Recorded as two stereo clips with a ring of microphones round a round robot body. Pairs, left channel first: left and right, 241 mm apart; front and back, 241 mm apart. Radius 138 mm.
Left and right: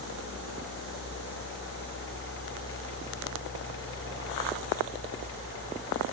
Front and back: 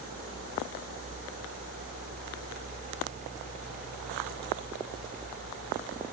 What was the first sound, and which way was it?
Only background noise.